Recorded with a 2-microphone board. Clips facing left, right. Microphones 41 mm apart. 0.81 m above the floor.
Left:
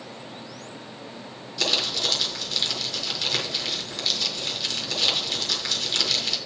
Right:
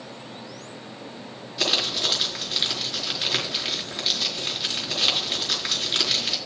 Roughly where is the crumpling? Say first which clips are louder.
Right 1 dB; centre.